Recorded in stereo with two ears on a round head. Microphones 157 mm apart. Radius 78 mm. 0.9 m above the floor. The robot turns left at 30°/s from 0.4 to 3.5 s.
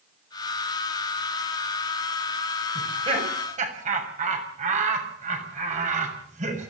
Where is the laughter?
20° right (ahead or behind), 6.5 m; by 6.7 s 45° right (ahead or behind), 6.5 m.